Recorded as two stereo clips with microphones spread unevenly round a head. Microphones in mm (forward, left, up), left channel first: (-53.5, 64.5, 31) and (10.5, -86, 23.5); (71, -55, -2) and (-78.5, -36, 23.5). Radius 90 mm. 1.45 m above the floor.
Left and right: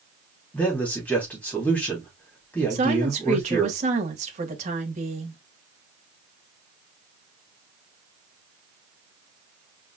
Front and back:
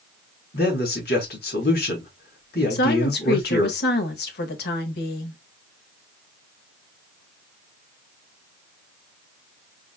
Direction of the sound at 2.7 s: 15° right.